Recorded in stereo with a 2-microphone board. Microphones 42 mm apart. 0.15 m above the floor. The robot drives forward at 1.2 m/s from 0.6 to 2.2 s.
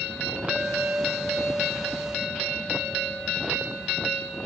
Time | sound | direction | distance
0.5 | a clink | 35° right (ahead or behind) | 0.9 m